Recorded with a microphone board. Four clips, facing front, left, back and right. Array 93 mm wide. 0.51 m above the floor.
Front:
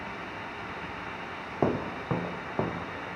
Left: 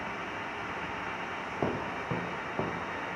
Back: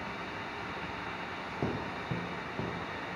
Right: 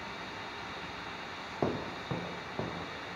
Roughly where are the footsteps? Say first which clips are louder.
Left 1 dB, front 8 dB; ahead.